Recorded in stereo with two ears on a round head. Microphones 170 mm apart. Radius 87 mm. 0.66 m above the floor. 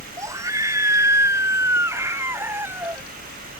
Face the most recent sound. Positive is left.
turn(degrees=-10)  # may be behind; listen again after turning